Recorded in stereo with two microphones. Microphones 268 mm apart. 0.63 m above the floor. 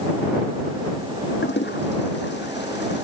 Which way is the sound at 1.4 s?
40° left (ahead or behind).